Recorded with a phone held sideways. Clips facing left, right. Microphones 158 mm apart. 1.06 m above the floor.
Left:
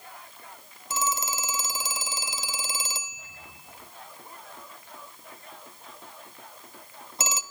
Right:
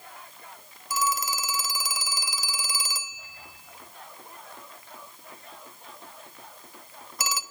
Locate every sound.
0.9 s a phone ringing: 25° left (ahead or behind), 0.7 m